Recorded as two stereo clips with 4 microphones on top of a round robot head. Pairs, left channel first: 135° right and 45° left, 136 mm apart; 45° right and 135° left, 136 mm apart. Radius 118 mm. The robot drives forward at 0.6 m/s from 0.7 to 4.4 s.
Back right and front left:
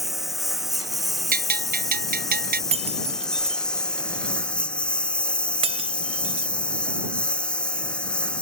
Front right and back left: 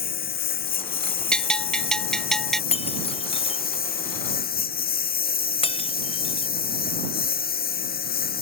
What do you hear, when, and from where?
0.0 s a lawn mower: 40° right; by 8.4 s 50° right
1.3 s a bell: 35° left; by 2.6 s 40° left
2.7 s breaking glass: straight ahead